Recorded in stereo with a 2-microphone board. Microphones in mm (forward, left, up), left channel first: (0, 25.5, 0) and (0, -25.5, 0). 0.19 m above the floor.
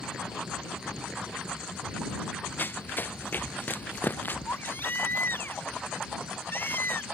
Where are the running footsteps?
45° left (ahead or behind); by 4.4 s 40° left (ahead or behind).